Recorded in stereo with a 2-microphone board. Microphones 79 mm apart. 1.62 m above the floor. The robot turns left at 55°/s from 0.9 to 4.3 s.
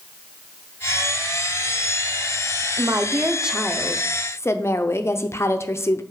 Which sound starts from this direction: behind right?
A woman speaking, at 2.8 s.